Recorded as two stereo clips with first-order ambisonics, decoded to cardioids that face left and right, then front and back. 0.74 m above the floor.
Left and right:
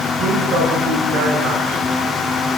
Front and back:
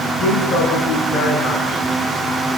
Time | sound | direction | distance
0.2 | a woman speaking | 50° right | 9 m